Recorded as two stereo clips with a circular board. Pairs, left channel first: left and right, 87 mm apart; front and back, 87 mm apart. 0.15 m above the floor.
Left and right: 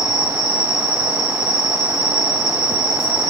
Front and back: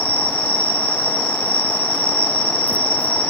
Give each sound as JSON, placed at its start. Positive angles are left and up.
{"t": 0.0, "sound": "an insect", "azimuth_deg": -165, "distance_m": 2.0}